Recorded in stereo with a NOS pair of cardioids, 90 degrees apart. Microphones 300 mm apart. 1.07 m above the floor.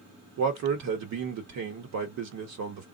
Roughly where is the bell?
No bell in this recording.